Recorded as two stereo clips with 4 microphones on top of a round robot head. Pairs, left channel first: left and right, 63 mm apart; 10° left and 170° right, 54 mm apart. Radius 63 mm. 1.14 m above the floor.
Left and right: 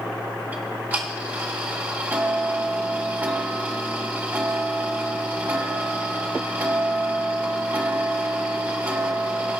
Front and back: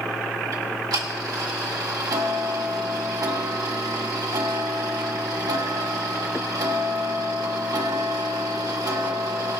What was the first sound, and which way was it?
Ticking, 155° right.